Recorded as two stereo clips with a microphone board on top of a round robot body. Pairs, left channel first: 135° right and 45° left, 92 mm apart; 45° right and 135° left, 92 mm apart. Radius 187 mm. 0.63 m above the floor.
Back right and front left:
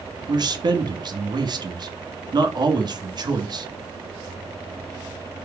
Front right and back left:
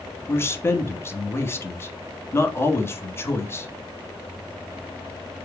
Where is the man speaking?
15° left, 1.7 m.